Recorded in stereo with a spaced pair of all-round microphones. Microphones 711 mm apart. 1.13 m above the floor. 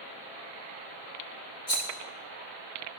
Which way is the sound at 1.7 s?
65° left (ahead or behind).